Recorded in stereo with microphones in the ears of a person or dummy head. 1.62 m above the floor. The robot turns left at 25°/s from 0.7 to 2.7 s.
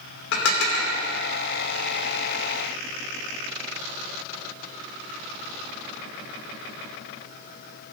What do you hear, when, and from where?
0.3 s dishes clattering: 70° left (ahead or behind), 3 m